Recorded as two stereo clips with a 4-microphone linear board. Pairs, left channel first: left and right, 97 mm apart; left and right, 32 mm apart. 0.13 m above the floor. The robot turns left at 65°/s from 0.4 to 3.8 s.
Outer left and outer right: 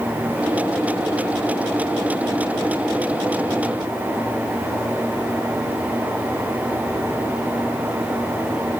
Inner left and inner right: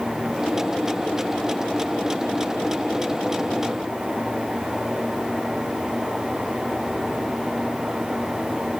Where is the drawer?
No drawer in this recording.